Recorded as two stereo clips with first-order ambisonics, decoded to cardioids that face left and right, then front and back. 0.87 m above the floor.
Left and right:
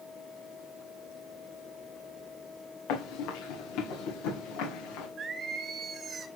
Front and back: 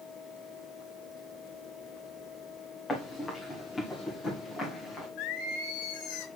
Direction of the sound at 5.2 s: 20° right.